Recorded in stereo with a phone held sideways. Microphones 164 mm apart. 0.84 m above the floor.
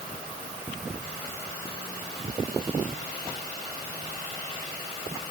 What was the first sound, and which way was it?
Only background noise.